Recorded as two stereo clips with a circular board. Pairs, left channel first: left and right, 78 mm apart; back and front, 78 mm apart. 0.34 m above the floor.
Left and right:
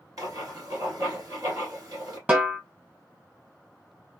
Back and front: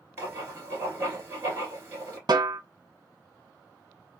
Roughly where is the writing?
Ahead right.